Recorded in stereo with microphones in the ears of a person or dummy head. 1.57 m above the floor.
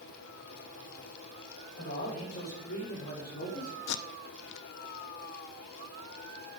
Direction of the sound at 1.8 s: 55° left (ahead or behind).